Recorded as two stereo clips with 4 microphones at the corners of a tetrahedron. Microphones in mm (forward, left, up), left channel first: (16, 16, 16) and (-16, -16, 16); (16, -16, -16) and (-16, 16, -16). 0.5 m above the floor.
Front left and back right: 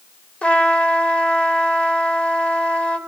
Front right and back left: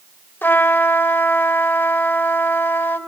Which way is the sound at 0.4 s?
15° right.